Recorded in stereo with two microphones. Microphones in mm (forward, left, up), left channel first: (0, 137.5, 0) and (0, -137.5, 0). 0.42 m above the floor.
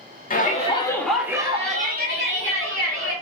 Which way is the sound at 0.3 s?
35° left (ahead or behind).